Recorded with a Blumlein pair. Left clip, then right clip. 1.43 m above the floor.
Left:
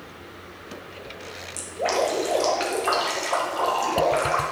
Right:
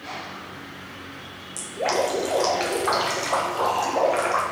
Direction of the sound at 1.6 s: Straight ahead.